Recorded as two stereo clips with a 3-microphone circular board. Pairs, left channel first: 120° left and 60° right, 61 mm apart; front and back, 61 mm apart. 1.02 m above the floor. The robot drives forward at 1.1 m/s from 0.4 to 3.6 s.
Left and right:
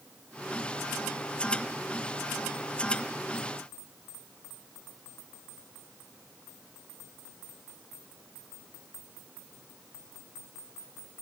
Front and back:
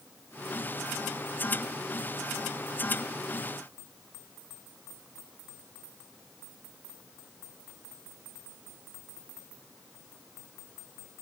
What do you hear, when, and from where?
Only background noise.